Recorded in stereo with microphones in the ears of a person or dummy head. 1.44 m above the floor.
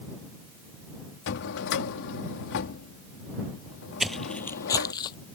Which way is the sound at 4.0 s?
5° right (ahead or behind).